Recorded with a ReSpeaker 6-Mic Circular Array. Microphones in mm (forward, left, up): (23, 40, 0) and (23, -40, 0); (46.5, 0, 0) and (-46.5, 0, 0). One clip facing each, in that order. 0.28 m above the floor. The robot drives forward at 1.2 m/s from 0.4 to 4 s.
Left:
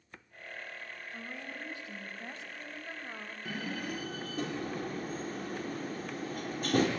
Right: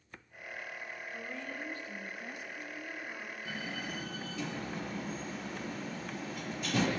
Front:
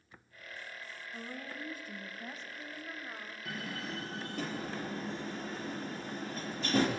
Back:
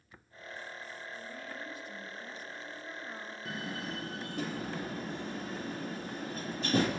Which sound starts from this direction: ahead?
A woman speaking, at 1.1 s.